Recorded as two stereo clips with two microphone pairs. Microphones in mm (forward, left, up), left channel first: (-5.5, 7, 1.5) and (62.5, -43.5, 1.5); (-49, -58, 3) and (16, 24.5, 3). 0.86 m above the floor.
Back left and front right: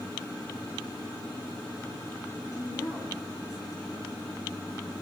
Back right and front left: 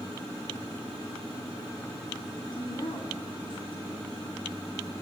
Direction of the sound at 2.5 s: 165° right.